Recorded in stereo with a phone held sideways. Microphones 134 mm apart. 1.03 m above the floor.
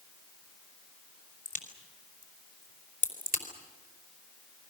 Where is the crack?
75° left (ahead or behind), 3.5 m.